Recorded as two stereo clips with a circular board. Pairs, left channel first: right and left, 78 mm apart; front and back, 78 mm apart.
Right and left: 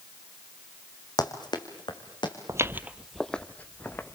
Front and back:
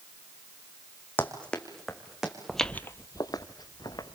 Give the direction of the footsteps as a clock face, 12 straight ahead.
9 o'clock.